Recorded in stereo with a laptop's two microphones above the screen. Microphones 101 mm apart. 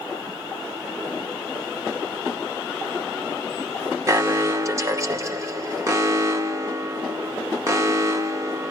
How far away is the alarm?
About 1.2 m.